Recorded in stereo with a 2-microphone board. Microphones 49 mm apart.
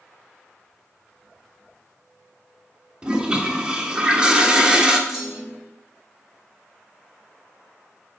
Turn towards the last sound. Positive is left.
turn(degrees=-10)  # may be behind; listen again after turning